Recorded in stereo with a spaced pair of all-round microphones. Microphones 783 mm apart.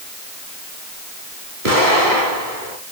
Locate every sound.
1.6 s an explosion: 80° right, 6.5 m